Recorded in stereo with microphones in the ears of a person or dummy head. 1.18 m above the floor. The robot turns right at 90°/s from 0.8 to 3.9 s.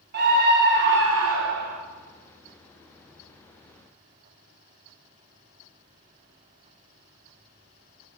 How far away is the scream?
About 1.1 m.